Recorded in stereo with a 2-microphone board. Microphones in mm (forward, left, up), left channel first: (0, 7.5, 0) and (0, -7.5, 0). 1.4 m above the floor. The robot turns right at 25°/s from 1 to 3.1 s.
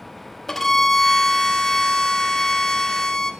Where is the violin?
45° left, 1.0 m; by 3.3 s 95° left, 1.0 m.